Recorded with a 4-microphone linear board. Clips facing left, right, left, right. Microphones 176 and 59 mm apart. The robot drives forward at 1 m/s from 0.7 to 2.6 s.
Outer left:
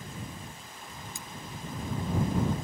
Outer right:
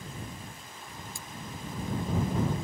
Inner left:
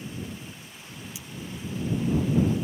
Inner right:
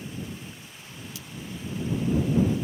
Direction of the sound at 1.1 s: 20° left (ahead or behind).